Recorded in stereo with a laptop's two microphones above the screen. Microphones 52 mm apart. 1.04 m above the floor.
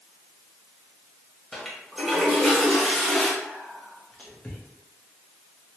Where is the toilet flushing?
Centre (ahead or behind), 0.6 m.